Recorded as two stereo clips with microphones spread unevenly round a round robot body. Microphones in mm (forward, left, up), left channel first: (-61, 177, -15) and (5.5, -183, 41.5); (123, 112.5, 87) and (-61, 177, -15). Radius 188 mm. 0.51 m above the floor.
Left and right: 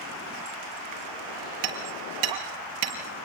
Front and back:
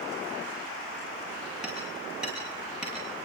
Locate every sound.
1.6 s hammering: 115° right, 5.5 m